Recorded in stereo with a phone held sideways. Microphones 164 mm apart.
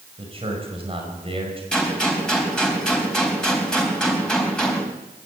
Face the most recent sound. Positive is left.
turn(degrees=5)  # may be behind; listen again after turning